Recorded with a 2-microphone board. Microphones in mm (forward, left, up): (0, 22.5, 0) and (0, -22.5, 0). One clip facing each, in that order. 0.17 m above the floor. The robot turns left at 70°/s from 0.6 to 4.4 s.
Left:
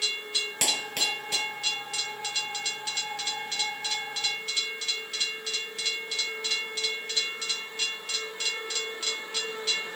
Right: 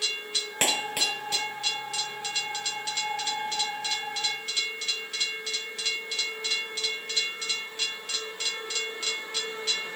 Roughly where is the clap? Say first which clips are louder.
Right 4 dB; right.